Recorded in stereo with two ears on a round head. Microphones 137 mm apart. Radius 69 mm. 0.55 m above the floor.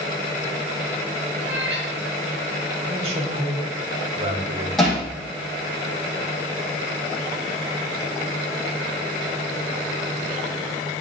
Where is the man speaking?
40° right (ahead or behind), 2.5 m.